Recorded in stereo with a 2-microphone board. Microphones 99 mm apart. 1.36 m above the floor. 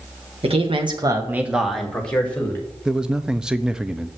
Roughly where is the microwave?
No microwave in this recording.